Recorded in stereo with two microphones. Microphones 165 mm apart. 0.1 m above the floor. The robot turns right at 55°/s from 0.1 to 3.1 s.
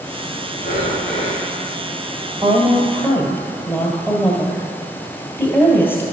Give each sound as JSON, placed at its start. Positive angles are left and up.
{"t": 0.6, "sound": "breathing", "azimuth_deg": 60, "distance_m": 3.5}
{"t": 2.4, "sound": "a woman speaking", "azimuth_deg": -25, "distance_m": 2.0}